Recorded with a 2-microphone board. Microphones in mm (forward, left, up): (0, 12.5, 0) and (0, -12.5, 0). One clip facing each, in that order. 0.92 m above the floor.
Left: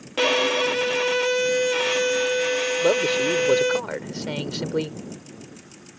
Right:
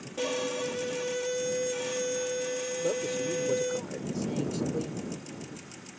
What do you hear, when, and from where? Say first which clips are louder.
0.2 s a violin: left 11 dB; 80° left
2.8 s a man speaking: left 10 dB; 70° left (ahead or behind)